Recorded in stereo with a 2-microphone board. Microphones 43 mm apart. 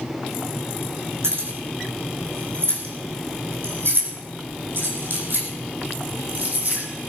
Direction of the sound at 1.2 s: 75° right (ahead or behind).